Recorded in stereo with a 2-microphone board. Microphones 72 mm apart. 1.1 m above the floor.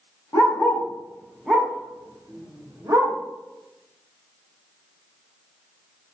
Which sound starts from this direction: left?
A dog barking, at 0.3 s.